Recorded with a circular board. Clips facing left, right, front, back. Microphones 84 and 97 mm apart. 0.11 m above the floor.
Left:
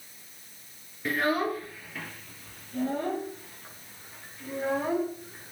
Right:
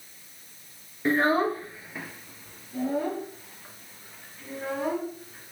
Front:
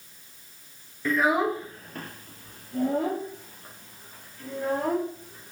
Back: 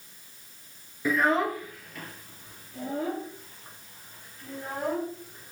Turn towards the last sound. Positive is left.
turn(degrees=-5)